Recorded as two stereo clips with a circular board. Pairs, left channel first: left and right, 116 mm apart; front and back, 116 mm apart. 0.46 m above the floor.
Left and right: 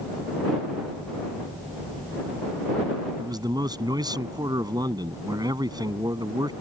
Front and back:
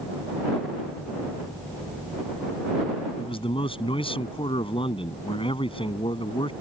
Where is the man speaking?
35° right.